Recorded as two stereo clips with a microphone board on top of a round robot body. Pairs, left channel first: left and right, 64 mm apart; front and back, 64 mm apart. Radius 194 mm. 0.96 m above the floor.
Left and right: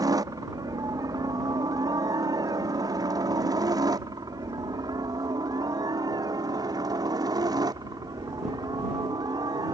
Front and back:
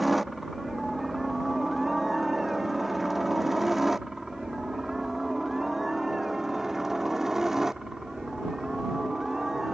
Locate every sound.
0.0 s a helicopter: 90° right; by 9.8 s 95° right